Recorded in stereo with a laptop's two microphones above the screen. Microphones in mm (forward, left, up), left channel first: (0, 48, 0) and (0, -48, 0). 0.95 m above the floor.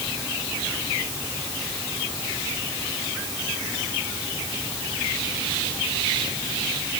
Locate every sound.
Only background noise.